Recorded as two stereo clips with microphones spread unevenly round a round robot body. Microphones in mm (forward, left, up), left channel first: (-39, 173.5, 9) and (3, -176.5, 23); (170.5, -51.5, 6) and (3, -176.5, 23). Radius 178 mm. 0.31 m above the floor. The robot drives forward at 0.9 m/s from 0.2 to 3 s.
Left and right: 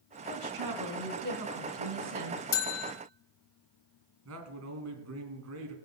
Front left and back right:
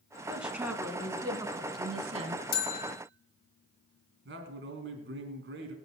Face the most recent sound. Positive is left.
turn(degrees=-125)